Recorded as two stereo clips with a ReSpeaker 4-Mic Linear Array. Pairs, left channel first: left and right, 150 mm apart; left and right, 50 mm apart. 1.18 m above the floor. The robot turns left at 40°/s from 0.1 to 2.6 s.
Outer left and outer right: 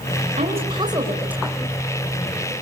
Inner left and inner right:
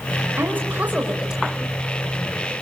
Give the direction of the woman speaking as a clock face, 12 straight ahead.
4 o'clock.